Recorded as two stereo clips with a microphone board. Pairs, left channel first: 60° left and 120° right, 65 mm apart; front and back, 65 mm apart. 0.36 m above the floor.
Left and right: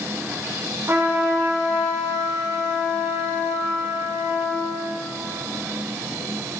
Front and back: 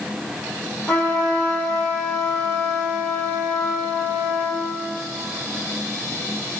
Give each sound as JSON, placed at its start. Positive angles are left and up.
{"t": 0.9, "sound": "a trumpet", "azimuth_deg": -65, "distance_m": 2.0}